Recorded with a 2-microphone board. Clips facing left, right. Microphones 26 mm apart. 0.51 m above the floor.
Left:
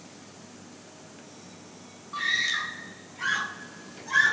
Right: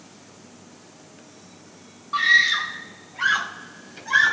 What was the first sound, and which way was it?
A scream, 45° right (ahead or behind).